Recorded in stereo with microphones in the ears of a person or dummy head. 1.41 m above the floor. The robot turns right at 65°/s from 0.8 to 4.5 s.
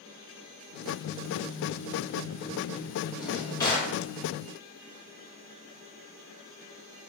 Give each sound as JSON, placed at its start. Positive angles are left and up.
{"t": 3.1, "sound": "a drawer", "azimuth_deg": -10, "distance_m": 1.1}